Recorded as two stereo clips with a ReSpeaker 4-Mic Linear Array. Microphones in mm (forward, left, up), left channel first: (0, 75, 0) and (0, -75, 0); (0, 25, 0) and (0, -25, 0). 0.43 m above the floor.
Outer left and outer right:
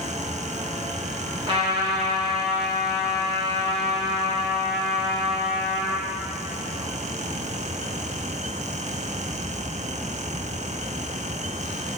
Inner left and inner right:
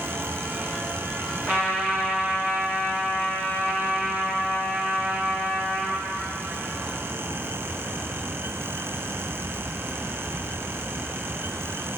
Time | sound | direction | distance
1.5 | a trumpet | 35° right (ahead or behind) | 3.5 m